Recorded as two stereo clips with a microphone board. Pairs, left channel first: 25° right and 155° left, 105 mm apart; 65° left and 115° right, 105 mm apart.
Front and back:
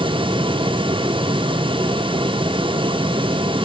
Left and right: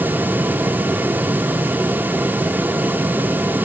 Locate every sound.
Only background noise.